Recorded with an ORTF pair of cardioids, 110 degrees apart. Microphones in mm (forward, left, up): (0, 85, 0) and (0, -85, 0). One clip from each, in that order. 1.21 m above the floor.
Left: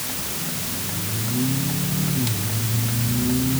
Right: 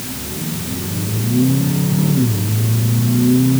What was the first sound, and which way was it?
Only background noise.